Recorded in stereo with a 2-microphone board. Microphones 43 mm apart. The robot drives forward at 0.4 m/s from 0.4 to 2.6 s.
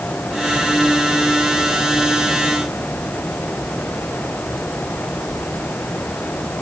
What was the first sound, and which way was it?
Only background noise.